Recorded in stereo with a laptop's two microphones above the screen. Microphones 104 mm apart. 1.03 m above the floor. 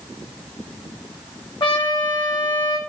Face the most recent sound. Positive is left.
turn(degrees=50)  # may be behind; listen again after turning